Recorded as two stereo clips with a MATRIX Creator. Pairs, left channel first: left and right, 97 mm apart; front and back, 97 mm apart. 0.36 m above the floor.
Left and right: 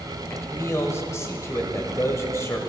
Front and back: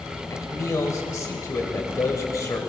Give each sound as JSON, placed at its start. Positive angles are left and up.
{"t": 0.3, "sound": "a man speaking", "azimuth_deg": 40, "distance_m": 1.1}